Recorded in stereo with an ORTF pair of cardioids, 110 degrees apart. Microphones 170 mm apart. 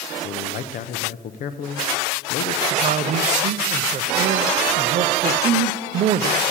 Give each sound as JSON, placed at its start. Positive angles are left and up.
{"t": 0.2, "sound": "a man speaking", "azimuth_deg": 55, "distance_m": 0.7}
{"t": 2.7, "sound": "a man speaking", "azimuth_deg": -45, "distance_m": 0.6}